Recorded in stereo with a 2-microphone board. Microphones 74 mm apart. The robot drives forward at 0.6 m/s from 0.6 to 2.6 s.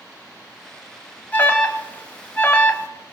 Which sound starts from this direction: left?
An alarm, at 1.3 s.